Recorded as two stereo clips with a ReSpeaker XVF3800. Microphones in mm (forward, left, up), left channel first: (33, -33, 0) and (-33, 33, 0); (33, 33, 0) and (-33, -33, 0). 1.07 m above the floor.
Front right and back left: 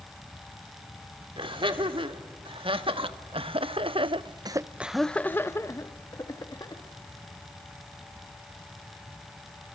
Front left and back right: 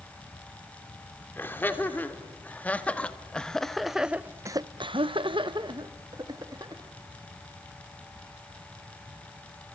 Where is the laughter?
110° left, 3 m; by 6.8 s 90° right, 1.9 m.